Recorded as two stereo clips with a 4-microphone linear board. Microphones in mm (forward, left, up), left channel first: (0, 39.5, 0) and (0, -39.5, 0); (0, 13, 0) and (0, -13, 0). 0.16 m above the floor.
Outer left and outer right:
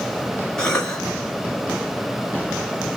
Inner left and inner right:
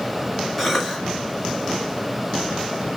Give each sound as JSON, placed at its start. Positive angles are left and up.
{"t": 0.6, "sound": "a cough", "side_deg": 10, "distance_m": 1.8}